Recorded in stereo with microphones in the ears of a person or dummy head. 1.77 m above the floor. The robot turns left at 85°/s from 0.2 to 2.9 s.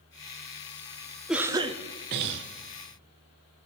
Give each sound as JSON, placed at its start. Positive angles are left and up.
{"t": 1.3, "sound": "a cough", "azimuth_deg": 0, "distance_m": 0.6}